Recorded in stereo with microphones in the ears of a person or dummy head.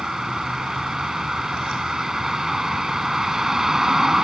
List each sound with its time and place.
0.0 s a vehicle: 5° right (ahead or behind)